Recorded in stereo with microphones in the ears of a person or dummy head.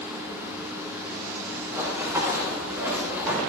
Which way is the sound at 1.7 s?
10° right (ahead or behind).